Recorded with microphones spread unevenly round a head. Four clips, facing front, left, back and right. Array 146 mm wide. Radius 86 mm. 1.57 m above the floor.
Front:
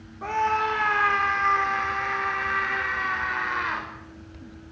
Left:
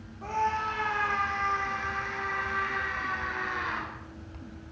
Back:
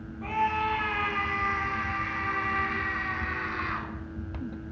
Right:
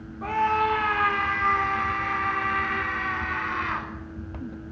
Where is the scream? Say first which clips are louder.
Right 6 dB, front 3 dB; 40° right, 5.5 m; by 3.9 s 25° right, 7.5 m.